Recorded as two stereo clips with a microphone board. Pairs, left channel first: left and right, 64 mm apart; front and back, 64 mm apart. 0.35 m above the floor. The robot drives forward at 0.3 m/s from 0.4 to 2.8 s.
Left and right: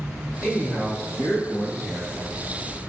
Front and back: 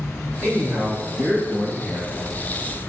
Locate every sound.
0.4 s a man speaking: 130° left, 1.2 m; by 2.3 s 155° left, 1.4 m